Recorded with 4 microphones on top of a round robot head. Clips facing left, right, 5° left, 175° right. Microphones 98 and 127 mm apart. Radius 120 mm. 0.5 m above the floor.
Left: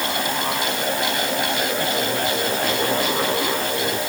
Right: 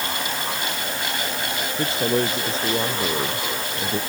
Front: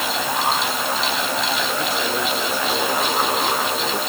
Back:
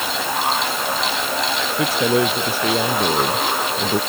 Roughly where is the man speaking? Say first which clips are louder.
Right 1 dB, back 5 dB; behind right.